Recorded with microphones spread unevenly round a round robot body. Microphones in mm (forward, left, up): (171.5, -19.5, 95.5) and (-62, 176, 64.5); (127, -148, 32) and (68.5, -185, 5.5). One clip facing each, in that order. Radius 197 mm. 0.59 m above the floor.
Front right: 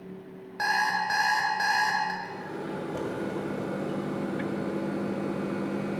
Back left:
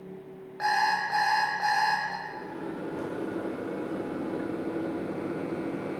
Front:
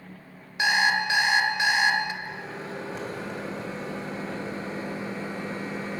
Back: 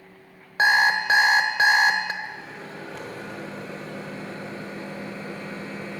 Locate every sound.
0.6 s an alarm clock: 95° right, 1.1 m
2.2 s a microwave: 35° right, 2.5 m